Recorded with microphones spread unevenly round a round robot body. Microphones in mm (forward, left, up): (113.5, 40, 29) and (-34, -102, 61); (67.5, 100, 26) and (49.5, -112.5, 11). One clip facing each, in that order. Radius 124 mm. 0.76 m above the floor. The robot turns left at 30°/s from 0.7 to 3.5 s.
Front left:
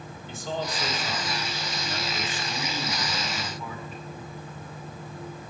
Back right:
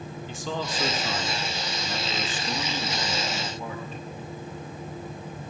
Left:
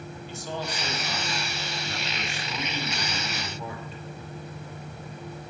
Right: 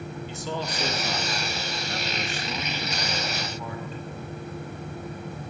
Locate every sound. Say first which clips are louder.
0.3 s a man speaking: front left 1 dB, right 1 dB; 120° right, 2 m; by 4.0 s 155° left, 2 m